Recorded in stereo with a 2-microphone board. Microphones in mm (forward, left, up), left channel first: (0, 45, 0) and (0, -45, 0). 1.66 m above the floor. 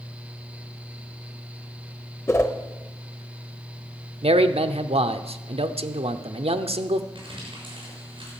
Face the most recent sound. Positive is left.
turn(degrees=-60)  # may be behind; listen again after turning